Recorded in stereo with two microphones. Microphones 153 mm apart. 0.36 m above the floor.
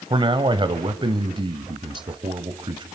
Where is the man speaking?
30° right (ahead or behind), 1.6 m.